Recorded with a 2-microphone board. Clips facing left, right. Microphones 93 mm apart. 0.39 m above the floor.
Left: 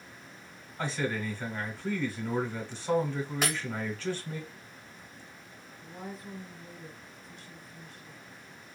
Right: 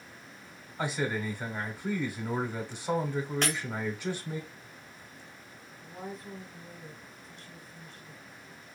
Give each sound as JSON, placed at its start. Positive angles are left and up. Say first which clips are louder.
{"t": 0.8, "sound": "a man speaking", "louder": "right 1 dB", "side_deg": -15, "distance_m": 0.9}
{"t": 3.4, "sound": "breaking glass", "louder": "left 1 dB", "side_deg": 5, "distance_m": 1.1}
{"t": 5.8, "sound": "a woman speaking", "louder": "right 1 dB", "side_deg": 0, "distance_m": 1.1}